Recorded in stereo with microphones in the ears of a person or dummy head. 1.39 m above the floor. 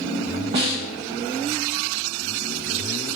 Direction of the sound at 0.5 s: 30° right (ahead or behind).